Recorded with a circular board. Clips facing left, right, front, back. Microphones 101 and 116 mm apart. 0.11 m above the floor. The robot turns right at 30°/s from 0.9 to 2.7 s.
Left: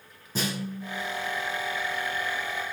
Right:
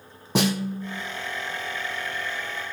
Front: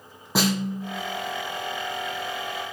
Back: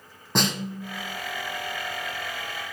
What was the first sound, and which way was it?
A snare drum, 85° right.